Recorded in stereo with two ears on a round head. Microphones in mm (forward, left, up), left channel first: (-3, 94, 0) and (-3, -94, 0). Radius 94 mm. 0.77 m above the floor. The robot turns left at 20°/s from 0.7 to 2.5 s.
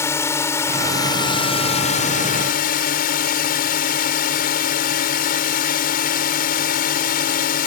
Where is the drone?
165° left; by 7.7 s 130° left.